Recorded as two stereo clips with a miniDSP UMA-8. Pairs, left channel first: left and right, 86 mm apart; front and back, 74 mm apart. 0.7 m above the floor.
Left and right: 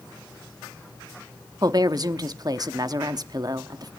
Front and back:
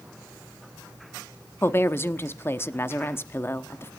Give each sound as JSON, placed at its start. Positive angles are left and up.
{"t": 1.6, "sound": "a woman speaking", "azimuth_deg": -55, "distance_m": 0.9}